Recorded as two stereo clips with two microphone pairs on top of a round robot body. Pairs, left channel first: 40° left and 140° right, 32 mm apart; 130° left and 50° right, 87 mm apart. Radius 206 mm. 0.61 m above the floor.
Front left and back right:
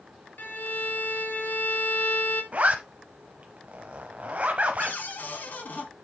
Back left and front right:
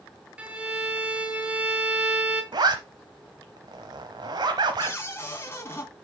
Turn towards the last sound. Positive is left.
turn(degrees=65)